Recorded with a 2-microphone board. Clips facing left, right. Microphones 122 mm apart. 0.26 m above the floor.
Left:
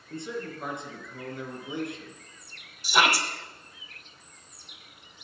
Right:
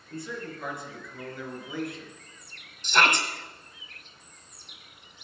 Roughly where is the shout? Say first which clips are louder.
Even; centre.